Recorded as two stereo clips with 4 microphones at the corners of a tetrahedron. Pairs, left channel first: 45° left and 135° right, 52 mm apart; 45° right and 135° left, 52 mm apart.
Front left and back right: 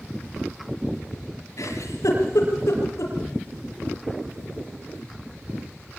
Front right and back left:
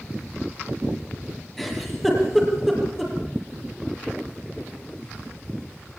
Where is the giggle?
45° left, 6.5 m.